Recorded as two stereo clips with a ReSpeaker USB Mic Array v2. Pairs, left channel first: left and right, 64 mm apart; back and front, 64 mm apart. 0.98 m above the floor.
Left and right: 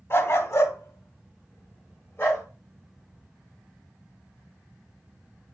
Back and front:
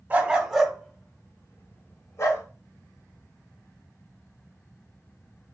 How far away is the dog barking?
About 0.8 m.